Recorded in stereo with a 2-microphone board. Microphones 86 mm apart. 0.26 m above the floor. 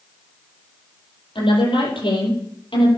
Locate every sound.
1.4 s a woman speaking: 80° left, 8.5 m